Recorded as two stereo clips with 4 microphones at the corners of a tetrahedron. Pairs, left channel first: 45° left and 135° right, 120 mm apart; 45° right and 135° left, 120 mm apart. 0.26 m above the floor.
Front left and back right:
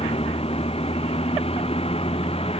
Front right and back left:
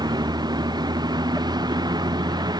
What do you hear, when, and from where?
0.0 s a vehicle: 80° left